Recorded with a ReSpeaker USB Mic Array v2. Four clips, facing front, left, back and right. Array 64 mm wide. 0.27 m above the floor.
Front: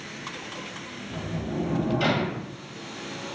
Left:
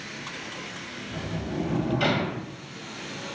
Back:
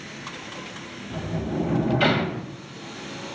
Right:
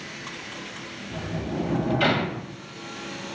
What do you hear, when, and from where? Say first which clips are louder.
1.1 s a sliding door: right 2 dB, back 3 dB; 160° right, 0.6 m